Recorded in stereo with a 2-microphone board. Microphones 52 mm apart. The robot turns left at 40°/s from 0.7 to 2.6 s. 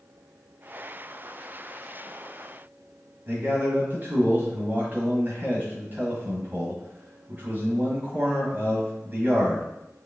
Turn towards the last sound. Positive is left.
turn(degrees=-40)  # may be behind; listen again after turning